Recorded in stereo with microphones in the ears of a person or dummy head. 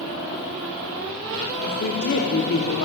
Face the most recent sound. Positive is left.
turn(degrees=60)  # may be behind; listen again after turning